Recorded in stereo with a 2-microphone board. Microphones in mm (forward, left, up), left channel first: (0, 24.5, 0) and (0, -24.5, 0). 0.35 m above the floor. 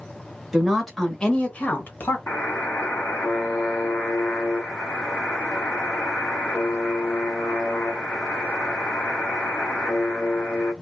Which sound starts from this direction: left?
A buzzer, at 2.3 s.